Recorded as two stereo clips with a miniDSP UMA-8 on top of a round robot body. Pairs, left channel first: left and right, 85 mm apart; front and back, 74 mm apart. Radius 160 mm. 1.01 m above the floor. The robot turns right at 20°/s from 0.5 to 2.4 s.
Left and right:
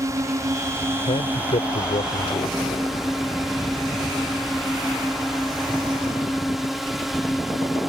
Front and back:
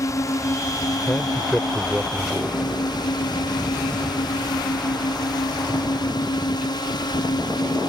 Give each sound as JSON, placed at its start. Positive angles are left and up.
{"t": 0.0, "sound": "a drone", "azimuth_deg": -40}
{"t": 1.1, "sound": "a man speaking", "azimuth_deg": 75}